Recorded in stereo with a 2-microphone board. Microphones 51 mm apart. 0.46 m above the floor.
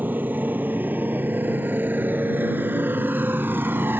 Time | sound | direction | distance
0.0 | a motorcycle | 35° right (ahead or behind) | ?